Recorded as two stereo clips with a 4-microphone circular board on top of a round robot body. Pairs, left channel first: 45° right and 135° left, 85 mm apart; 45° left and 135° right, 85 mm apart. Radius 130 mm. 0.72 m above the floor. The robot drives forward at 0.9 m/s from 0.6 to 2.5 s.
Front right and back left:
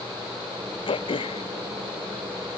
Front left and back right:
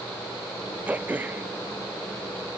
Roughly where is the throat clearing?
Ahead right.